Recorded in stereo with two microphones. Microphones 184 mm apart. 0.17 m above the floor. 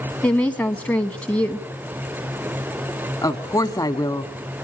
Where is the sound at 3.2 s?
20° left (ahead or behind), 1.0 m.